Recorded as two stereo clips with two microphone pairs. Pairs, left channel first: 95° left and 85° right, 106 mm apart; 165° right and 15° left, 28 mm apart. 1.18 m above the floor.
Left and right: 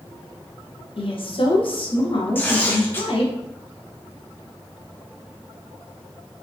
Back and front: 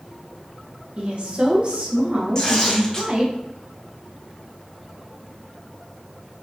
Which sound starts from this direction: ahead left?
A woman speaking, at 1.0 s.